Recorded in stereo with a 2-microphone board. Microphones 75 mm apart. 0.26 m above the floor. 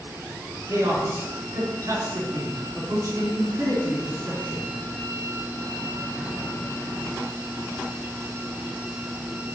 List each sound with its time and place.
0.7 s a man speaking: 50° right (ahead or behind), 3 m